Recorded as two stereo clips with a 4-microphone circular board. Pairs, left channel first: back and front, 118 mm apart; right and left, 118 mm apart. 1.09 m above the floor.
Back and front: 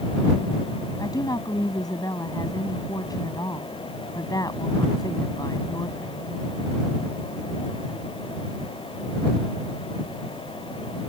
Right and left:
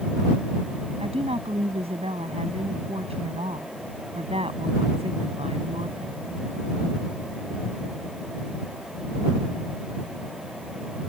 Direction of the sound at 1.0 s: 125° left.